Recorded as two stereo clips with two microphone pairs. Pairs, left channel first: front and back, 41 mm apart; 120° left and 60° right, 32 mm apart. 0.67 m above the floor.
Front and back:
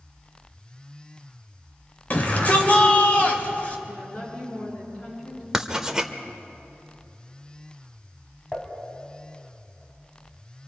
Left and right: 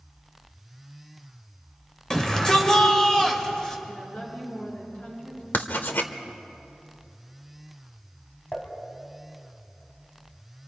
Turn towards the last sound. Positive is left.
turn(degrees=70)